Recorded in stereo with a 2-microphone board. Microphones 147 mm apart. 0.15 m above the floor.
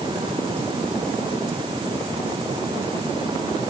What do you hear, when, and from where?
Only background noise.